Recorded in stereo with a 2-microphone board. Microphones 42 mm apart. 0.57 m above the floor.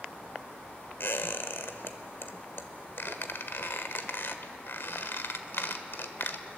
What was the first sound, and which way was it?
A squeak, 65° left (ahead or behind).